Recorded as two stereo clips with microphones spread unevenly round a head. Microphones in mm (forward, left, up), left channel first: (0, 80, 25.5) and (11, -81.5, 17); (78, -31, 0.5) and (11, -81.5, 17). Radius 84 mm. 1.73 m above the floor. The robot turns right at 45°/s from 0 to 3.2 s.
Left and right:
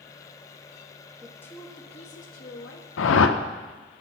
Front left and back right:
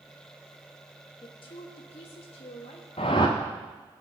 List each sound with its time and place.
1.2 s a woman speaking: 5° left, 1.3 m; by 2.9 s 80° left, 1.3 m
3.0 s a whoosh: 85° left, 0.6 m; by 3.4 s 95° left, 0.6 m